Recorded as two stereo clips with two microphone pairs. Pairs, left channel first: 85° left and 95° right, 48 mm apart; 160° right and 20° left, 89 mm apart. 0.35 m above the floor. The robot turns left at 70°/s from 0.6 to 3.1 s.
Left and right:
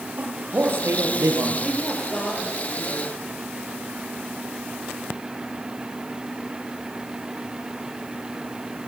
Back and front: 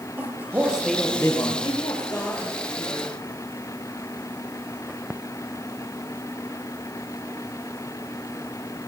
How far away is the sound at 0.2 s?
About 6.5 m.